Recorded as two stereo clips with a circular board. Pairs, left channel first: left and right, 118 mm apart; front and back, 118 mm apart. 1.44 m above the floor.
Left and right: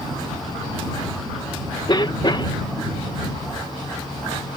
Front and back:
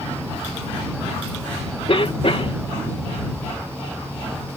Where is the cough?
40° left.